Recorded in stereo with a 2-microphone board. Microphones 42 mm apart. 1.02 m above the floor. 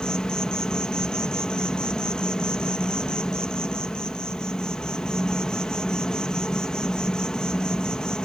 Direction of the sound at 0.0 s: 15° left (ahead or behind).